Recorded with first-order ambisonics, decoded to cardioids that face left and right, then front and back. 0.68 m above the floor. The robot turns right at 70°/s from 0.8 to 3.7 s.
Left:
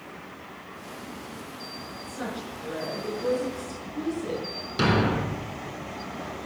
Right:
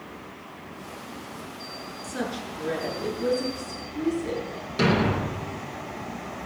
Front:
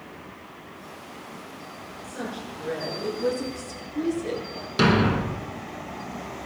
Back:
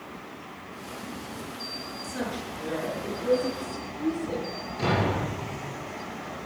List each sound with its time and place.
2.0 s a woman speaking: 105° right, 8 m; by 4.5 s 10° left, 8 m
4.8 s a thud: 10° left, 2.5 m